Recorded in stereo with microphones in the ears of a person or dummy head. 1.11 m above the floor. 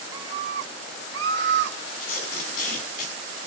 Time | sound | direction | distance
0.1 | a scream | 20° right (ahead or behind) | 0.7 m
2.0 | tape being pulled | 50° left (ahead or behind) | 7.5 m